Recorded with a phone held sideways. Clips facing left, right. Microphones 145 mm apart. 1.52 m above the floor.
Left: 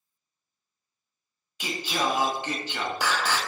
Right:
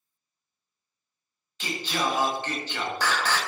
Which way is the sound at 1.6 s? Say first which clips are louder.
Even; 10° left (ahead or behind).